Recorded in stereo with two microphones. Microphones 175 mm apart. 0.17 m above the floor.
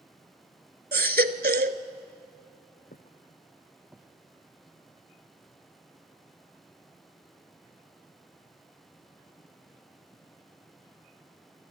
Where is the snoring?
I don't hear snoring.